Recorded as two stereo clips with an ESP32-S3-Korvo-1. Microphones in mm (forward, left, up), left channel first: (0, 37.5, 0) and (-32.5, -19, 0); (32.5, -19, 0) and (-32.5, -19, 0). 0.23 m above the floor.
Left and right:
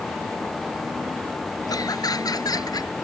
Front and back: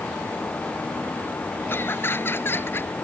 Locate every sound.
1.7 s laughter: 50° left